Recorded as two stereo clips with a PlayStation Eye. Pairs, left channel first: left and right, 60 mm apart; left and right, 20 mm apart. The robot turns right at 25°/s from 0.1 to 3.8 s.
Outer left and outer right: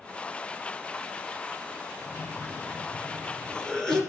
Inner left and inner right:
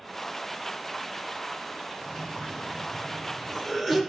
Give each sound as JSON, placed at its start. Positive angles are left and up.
{"t": 2.0, "sound": "a cough", "azimuth_deg": 120, "distance_m": 2.5}